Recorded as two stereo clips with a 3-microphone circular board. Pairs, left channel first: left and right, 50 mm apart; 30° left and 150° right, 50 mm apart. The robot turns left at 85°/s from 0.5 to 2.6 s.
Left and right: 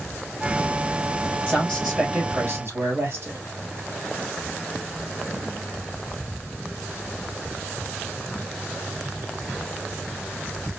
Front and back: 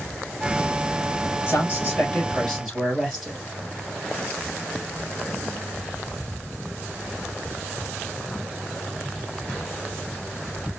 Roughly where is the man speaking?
Ahead left.